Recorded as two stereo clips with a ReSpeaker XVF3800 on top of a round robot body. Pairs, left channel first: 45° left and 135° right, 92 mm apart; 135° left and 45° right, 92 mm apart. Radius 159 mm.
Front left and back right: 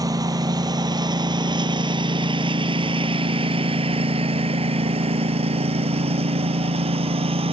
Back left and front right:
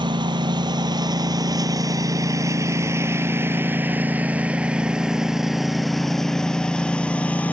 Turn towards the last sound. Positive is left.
turn(degrees=-150)